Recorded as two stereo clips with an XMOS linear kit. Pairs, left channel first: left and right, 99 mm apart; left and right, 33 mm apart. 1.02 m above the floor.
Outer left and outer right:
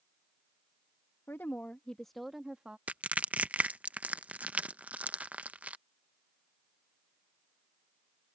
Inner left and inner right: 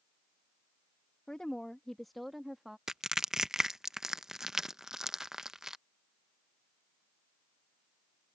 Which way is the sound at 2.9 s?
15° right (ahead or behind).